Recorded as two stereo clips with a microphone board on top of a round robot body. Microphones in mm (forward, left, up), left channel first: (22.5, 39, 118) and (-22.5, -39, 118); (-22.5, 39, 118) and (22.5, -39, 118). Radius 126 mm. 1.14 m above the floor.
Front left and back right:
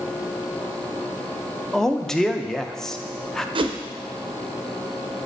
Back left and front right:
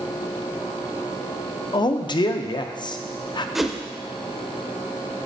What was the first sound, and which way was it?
A man speaking, 145° left.